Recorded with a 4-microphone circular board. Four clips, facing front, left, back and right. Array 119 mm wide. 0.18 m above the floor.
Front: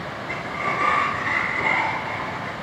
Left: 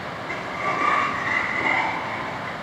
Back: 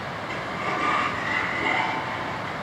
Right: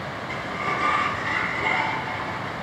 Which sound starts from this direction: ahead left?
A sliding door, at 0.3 s.